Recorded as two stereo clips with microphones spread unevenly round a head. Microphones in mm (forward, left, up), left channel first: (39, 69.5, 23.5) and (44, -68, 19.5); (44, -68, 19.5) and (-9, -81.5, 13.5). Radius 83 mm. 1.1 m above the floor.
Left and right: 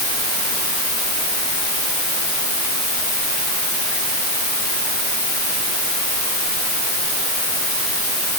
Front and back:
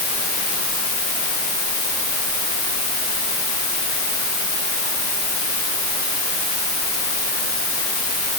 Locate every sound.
Only background noise.